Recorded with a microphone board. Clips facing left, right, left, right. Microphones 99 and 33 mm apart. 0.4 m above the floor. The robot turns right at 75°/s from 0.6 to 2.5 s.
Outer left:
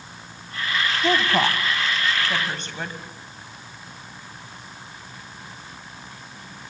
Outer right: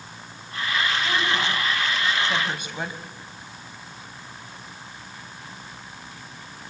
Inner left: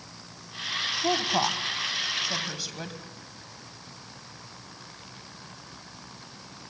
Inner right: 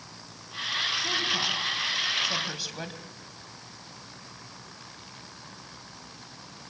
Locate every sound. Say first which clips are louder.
1.0 s a woman speaking: outer left 4 dB, inner left 2 dB; 65° left (ahead or behind), 3 m; by 3.0 s 10° right (ahead or behind), 3 m